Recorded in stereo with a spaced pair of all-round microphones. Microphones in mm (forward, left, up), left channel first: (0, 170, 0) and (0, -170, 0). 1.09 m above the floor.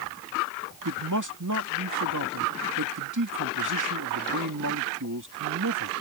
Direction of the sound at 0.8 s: 60° right (ahead or behind).